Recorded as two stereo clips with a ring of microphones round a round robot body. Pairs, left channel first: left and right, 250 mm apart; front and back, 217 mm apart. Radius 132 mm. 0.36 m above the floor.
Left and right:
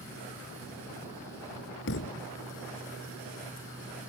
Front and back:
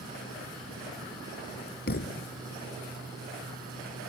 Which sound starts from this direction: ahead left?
A thud, at 1.9 s.